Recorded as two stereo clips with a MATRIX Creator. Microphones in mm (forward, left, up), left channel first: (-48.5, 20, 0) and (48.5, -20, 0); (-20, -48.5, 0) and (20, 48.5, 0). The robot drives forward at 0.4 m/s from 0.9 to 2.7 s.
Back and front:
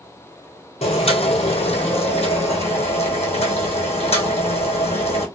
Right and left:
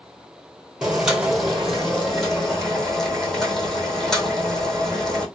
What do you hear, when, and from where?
0.8 s boiling: 150° left, 1.2 m; by 5.3 s 160° left, 1.8 m